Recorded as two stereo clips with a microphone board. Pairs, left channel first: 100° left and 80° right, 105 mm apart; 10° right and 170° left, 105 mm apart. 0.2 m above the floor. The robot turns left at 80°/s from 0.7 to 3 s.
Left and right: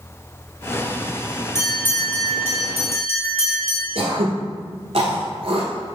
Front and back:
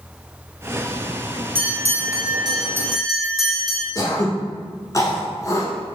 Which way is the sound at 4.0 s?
70° right.